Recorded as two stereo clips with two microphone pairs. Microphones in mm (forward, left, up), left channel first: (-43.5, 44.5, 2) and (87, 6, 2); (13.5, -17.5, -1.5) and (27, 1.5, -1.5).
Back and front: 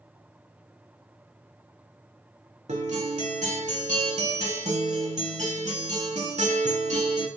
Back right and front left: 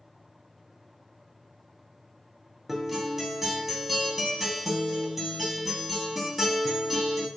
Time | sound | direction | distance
2.7 | a guitar | 30° right | 0.7 m